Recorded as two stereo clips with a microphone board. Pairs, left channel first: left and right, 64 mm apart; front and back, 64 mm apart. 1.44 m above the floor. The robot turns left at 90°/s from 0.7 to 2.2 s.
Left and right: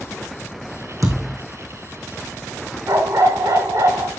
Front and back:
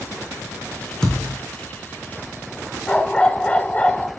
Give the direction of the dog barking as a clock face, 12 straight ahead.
2 o'clock.